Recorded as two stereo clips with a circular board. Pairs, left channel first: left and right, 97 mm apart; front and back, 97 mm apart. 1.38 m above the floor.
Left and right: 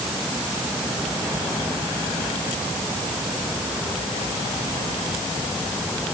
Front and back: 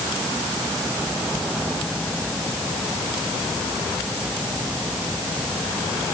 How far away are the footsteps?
I don't hear footsteps.